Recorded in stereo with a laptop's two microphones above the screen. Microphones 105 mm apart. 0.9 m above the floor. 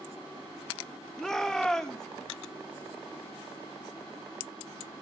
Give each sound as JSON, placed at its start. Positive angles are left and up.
{"t": 1.2, "sound": "a shout", "side_deg": 5, "distance_m": 2.5}